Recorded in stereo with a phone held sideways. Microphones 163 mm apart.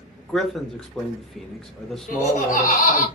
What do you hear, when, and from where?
0.3 s a man speaking: centre (ahead or behind), 0.7 m
2.1 s laughter: 55° left (ahead or behind), 1.0 m